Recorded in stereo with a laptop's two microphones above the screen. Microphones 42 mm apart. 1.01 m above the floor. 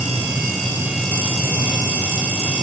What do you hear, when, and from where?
Only background noise.